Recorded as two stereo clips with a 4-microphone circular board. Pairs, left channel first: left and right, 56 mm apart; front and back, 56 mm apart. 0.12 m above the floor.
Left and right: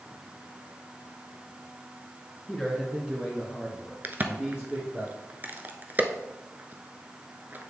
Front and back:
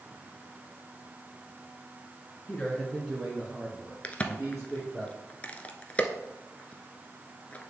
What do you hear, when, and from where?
2.5 s a man speaking: 15° left, 1.7 m; by 5.0 s 135° right, 3.5 m
4.0 s a crack: 55° right, 0.7 m